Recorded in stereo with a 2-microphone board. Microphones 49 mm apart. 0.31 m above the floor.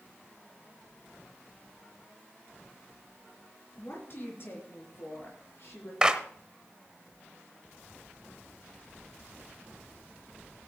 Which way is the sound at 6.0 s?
20° right (ahead or behind).